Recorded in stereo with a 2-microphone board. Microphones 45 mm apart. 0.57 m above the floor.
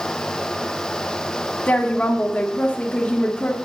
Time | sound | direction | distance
1.7 | a woman speaking | 30° left (ahead or behind) | 1.4 m